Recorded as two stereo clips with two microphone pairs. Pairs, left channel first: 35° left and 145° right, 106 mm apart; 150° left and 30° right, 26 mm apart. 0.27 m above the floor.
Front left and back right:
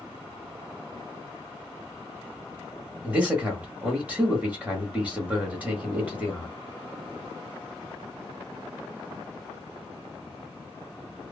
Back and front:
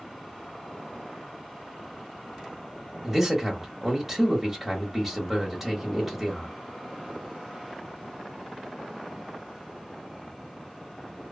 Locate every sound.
3.0 s a man speaking: 95° right, 1.0 m